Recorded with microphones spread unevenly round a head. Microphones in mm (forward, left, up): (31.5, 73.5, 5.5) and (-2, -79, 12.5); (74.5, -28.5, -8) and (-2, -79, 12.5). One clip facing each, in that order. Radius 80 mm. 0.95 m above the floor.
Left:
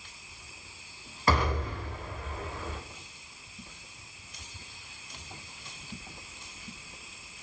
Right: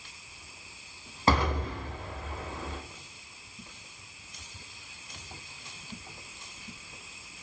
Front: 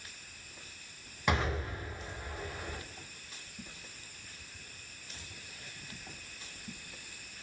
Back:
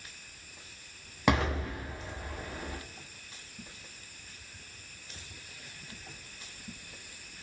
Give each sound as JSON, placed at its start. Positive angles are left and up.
{"t": 1.3, "sound": "an explosion", "azimuth_deg": -170, "distance_m": 0.7}